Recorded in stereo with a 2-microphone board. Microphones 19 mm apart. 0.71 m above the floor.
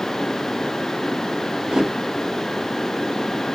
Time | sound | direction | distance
1.7 | a whoosh | 35° right (ahead or behind) | 0.8 m